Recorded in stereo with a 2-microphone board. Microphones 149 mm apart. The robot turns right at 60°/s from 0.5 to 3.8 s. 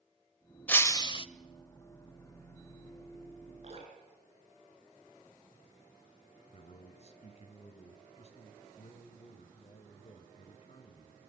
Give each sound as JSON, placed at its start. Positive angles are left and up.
{"t": 0.7, "sound": "breaking glass", "azimuth_deg": 10, "distance_m": 0.6}
{"t": 3.6, "sound": "dripping", "side_deg": -55, "distance_m": 5.0}
{"t": 6.5, "sound": "a man speaking", "side_deg": 45, "distance_m": 1.8}